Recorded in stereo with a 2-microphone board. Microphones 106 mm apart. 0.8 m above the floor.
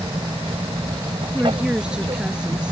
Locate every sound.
0.0 s an aircraft: 55° right (ahead or behind)
1.3 s a woman speaking: 10° right (ahead or behind)